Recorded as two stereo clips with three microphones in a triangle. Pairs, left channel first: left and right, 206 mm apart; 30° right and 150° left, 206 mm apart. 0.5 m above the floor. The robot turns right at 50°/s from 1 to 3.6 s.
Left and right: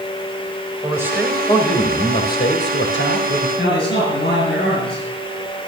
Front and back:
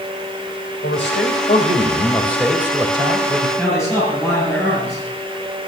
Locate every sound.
0.8 s a man speaking: 15° right, 2.5 m; by 3.5 s 110° left, 2.5 m
3.6 s a man speaking: 60° left, 9.5 m